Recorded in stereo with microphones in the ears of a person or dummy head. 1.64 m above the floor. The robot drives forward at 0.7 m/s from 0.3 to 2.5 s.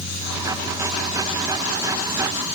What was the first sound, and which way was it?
Only background noise.